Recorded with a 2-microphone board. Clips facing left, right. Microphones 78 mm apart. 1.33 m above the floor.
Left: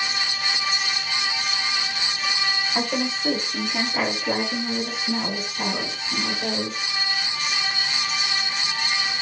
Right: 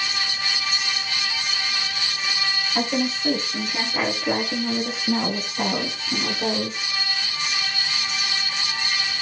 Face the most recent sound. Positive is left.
turn(degrees=-75)  # may be behind; listen again after turning